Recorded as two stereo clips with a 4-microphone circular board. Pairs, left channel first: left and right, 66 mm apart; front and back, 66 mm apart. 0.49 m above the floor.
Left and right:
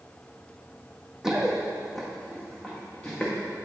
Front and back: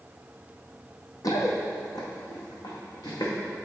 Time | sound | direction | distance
1.2 | running footsteps | 10° right | 1.2 m